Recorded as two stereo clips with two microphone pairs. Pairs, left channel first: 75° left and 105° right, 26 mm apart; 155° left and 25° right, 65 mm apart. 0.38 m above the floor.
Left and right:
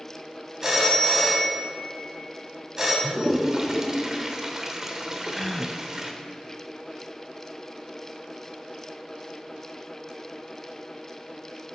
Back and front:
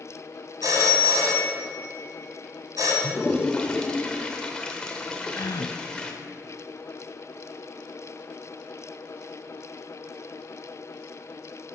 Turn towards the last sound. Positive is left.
turn(degrees=155)